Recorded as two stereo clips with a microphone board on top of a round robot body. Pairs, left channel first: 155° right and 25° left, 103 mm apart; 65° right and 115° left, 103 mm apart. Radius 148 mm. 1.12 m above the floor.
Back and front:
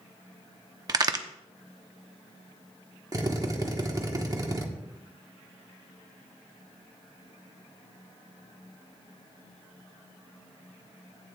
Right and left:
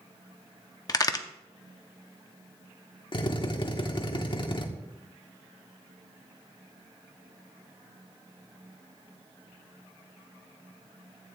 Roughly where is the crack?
Ahead right.